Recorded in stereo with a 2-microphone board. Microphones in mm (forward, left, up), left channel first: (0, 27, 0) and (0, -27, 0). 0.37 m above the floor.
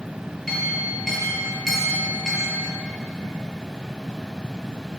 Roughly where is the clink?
Centre.